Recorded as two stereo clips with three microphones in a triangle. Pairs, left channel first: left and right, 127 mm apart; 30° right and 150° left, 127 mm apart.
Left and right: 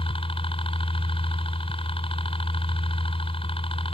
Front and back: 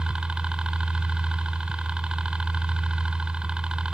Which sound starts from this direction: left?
A helicopter, at 0.0 s.